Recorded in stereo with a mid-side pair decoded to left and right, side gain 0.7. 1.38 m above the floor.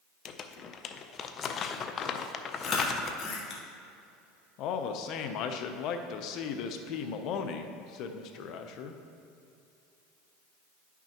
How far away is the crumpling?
About 0.5 m.